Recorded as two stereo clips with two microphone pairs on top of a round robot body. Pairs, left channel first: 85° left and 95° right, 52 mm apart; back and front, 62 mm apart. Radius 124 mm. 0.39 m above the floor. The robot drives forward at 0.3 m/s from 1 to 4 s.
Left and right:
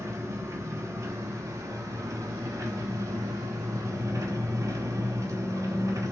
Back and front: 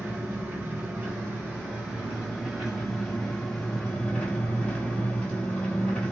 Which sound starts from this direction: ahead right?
An engine running, at 0.0 s.